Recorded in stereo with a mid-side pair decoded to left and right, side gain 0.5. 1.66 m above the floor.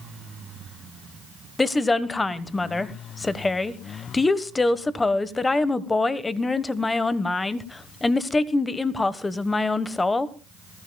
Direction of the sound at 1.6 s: 20° left.